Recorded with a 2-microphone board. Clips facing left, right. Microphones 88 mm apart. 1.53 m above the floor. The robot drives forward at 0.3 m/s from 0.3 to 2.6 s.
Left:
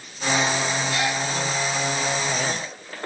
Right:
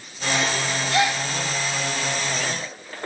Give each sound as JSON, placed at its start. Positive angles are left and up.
{"t": 0.9, "sound": "a gasp", "side_deg": -65, "distance_m": 0.7}